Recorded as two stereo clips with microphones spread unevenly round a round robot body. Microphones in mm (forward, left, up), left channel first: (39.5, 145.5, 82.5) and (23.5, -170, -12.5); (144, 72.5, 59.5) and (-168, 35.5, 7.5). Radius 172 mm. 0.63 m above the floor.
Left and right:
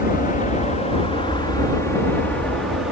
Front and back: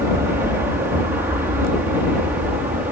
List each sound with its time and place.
0.0 s an aircraft: 155° left; by 2.9 s 125° right